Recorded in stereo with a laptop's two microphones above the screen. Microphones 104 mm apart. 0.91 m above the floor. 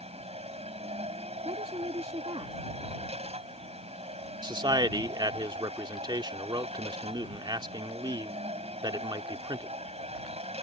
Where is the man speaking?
45° right (ahead or behind).